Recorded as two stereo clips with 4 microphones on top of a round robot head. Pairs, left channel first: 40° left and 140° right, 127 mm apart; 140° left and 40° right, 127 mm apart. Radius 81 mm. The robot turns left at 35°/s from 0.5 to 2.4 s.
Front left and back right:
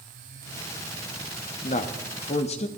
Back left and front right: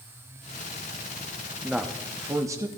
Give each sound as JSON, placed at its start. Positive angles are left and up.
{"t": 1.6, "sound": "a man speaking", "azimuth_deg": 50, "distance_m": 0.8}